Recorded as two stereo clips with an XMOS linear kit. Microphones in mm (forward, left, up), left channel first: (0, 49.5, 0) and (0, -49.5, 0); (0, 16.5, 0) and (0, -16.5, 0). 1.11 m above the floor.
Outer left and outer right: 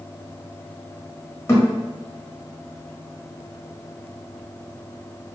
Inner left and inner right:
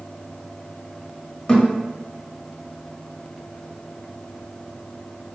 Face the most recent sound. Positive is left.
turn(degrees=30)  # may be behind; listen again after turning